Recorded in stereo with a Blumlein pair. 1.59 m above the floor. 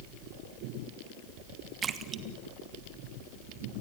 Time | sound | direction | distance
1.8 | a splash | 20° right | 1.3 m